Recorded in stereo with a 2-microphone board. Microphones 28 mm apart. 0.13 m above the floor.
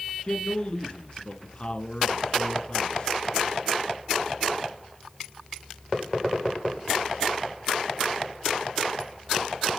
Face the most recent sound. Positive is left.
turn(degrees=35)  # may be behind; listen again after turning